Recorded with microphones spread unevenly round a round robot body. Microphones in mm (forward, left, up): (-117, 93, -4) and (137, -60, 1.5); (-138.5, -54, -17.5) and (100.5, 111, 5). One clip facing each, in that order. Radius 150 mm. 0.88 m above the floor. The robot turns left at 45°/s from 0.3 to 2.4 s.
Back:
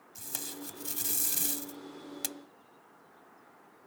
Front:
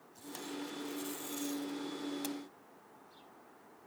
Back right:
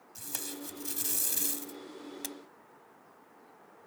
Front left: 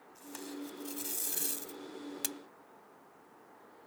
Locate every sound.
0.1 s tape being pulled: 170° right; by 2.4 s 95° left